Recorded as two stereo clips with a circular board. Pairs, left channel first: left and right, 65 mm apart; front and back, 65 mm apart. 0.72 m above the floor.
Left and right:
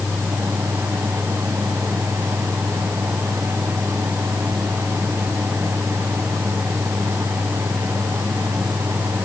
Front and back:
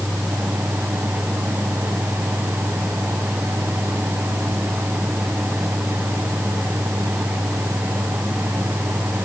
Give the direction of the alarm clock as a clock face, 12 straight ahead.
No alarm clock in this recording.